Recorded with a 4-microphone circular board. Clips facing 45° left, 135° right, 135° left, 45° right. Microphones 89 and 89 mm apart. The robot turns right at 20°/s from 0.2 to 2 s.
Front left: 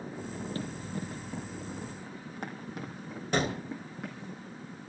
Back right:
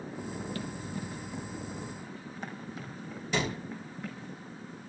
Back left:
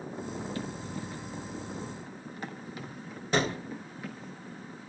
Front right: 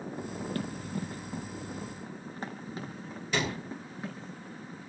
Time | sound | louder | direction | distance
0.6 | running footsteps | front left 1 dB, front right 2 dB | 10° right | 3.5 m
3.3 | a gunshot | front left 2 dB, back left 4 dB | 85° left | 3.5 m